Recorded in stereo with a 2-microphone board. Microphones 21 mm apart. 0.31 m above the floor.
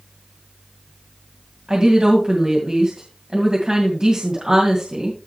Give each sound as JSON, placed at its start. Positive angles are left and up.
{"t": 1.7, "sound": "a woman speaking", "side_deg": -35, "distance_m": 2.5}